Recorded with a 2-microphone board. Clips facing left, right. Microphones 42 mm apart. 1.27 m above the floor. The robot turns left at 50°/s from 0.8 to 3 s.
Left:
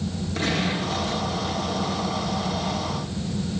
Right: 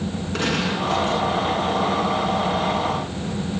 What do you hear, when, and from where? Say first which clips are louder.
0.3 s a gunshot: right 2 dB; 70° right (ahead or behind), 9.5 m; by 1.2 s 50° right (ahead or behind), 9.5 m